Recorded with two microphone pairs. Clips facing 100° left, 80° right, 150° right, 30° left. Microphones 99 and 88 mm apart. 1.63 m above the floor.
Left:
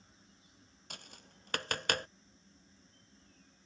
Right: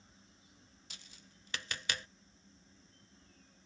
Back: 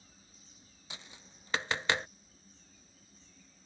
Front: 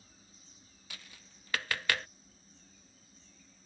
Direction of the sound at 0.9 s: 140° left.